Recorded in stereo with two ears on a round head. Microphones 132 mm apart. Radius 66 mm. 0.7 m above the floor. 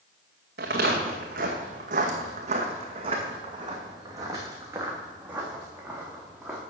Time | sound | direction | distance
0.6 | footsteps | 70° right (ahead or behind) | 2 m